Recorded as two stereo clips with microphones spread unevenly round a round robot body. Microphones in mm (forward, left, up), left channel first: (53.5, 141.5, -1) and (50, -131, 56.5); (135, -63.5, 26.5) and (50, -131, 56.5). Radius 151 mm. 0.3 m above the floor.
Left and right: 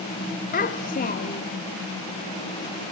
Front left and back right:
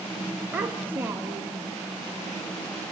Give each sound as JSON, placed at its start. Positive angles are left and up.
{"t": 0.5, "sound": "a child speaking", "azimuth_deg": 130, "distance_m": 0.9}